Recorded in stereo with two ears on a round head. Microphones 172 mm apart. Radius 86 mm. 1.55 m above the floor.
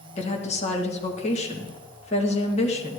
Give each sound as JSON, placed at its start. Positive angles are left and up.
{"t": 0.2, "sound": "a woman speaking", "side_deg": 35, "distance_m": 1.9}